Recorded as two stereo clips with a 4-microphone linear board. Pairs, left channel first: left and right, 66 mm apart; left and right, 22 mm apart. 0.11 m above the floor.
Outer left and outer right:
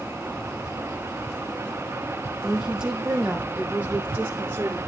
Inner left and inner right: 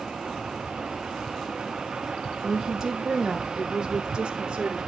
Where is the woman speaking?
10° right (ahead or behind), 4.5 m; by 4.8 s 35° right (ahead or behind), 4.5 m.